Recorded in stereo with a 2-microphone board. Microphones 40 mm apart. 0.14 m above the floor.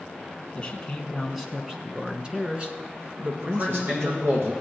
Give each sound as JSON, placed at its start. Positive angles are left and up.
{"t": 0.6, "sound": "a man speaking", "side_deg": 15, "distance_m": 1.2}
{"t": 3.4, "sound": "a man speaking", "side_deg": -70, "distance_m": 5.5}